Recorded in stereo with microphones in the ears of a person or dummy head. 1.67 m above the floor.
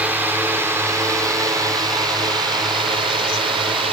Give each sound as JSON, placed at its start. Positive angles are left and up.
{"t": 0.0, "sound": "a drone", "side_deg": -10}